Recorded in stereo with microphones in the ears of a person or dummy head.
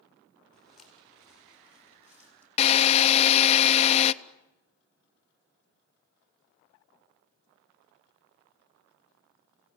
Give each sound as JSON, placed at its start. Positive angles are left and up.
{"t": 0.5, "sound": "footsteps", "side_deg": 0, "distance_m": 4.0}
{"t": 2.6, "sound": "a drill", "side_deg": 30, "distance_m": 0.7}